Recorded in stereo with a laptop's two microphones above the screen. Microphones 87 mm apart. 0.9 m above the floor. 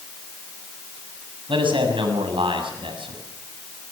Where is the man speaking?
80° right, 7 m.